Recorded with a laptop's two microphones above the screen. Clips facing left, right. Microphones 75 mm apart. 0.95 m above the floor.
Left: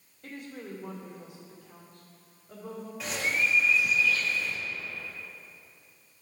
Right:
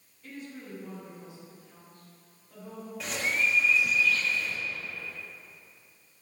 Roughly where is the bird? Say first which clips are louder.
Even; centre.